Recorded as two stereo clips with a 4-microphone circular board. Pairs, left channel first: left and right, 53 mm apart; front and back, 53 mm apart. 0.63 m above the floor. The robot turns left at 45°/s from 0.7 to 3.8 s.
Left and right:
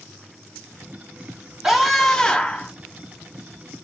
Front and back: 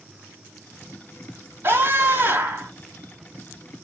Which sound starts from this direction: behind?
A scream, at 1.6 s.